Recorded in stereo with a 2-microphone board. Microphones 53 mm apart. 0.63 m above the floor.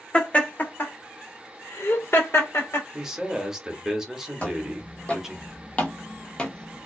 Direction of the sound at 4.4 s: 25° left (ahead or behind).